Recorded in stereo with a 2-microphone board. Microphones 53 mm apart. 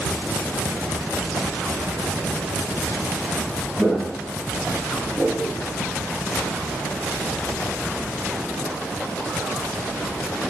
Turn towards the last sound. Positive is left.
turn(degrees=25)  # may be behind; listen again after turning